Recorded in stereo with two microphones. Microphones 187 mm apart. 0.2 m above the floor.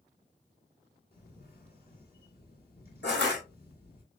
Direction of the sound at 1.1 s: 55° left (ahead or behind).